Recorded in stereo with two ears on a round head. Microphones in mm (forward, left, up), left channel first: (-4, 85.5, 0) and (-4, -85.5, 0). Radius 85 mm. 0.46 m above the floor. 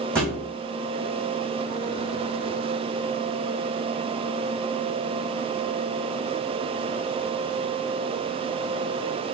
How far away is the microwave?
I don't hear a microwave.